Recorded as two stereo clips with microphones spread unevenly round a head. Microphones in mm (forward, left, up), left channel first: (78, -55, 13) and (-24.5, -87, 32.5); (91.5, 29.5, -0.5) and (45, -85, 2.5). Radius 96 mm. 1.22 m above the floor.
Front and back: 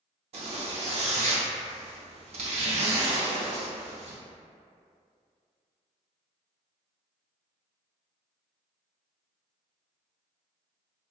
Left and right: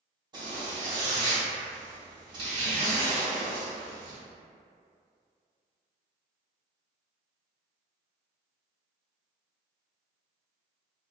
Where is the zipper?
170° right, 0.6 m.